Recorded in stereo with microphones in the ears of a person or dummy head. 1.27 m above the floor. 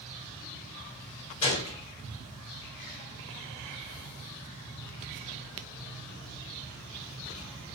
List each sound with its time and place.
1.4 s a gunshot: 35° left (ahead or behind), 2.5 m